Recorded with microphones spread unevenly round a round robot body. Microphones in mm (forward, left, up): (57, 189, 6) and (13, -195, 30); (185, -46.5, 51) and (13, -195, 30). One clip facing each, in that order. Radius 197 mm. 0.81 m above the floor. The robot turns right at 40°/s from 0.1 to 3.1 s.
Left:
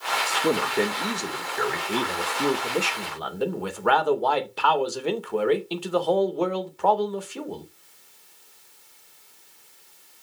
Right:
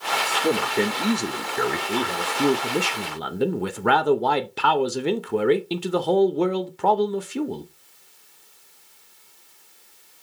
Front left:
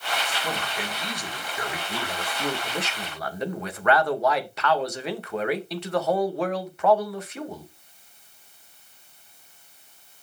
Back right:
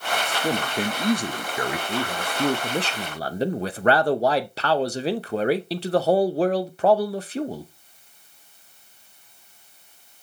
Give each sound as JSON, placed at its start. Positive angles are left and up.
{"t": 0.3, "sound": "a man speaking", "azimuth_deg": 160, "distance_m": 0.6}
{"t": 1.9, "sound": "a man speaking", "azimuth_deg": 175, "distance_m": 0.7}